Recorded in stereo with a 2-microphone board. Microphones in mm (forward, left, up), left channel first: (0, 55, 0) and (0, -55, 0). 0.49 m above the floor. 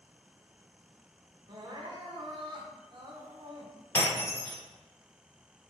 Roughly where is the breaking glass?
Left.